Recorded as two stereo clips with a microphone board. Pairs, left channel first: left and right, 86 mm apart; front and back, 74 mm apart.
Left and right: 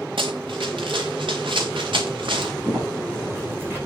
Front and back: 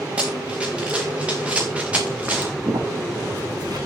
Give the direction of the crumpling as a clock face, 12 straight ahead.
5 o'clock.